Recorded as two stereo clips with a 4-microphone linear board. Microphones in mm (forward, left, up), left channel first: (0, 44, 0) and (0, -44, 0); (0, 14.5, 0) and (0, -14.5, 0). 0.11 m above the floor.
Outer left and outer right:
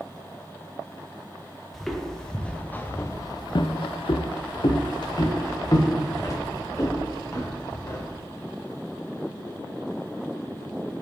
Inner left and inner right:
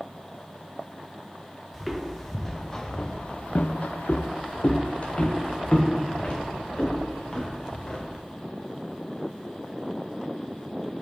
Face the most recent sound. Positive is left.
turn(degrees=35)  # may be behind; listen again after turning